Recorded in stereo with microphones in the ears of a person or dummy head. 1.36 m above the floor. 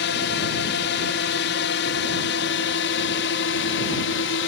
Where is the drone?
60° left (ahead or behind); by 4.5 s 65° left (ahead or behind).